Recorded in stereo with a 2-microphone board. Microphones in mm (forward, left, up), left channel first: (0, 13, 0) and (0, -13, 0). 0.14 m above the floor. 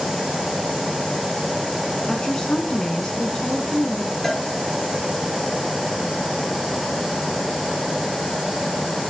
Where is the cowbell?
15° left (ahead or behind), 1.9 m.